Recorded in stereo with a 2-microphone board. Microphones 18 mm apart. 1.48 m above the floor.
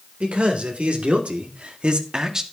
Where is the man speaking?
75° right (ahead or behind), 3 m; by 2.4 s 25° right (ahead or behind), 1.3 m.